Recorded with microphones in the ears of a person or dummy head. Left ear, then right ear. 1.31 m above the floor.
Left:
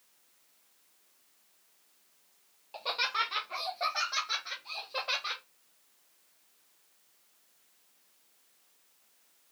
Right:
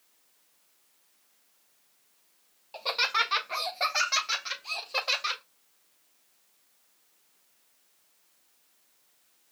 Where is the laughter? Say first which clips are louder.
Right 4 dB; 5° right (ahead or behind), 0.5 m; by 5.4 s 75° right (ahead or behind), 1.6 m.